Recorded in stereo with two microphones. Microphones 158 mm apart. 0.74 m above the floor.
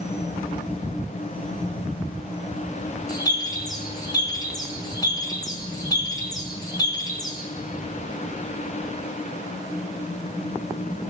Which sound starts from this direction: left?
A bird, at 3.1 s.